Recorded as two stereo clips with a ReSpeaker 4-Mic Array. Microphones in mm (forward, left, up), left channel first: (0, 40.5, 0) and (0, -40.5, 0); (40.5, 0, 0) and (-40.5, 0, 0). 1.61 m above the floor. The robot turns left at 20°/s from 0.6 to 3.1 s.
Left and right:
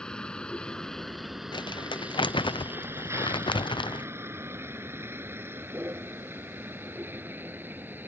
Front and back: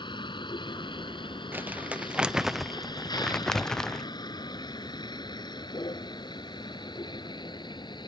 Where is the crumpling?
115° left; by 4.1 s 80° left.